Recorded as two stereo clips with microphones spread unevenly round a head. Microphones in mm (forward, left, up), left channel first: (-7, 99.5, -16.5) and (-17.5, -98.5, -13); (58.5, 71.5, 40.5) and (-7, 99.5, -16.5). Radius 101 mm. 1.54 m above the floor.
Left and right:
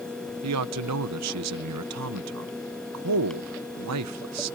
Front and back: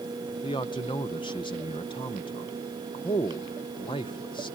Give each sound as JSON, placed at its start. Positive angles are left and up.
{"t": 0.4, "sound": "a man speaking", "azimuth_deg": -90}